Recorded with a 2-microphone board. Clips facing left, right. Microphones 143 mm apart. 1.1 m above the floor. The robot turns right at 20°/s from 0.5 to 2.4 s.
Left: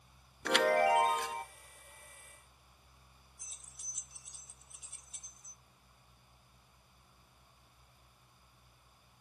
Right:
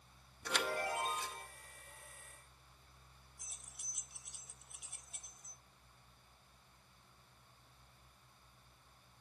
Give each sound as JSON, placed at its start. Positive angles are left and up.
{"t": 0.5, "sound": "a chime", "side_deg": 70, "distance_m": 0.9}
{"t": 3.4, "sound": "keys jangling", "side_deg": -60, "distance_m": 1.0}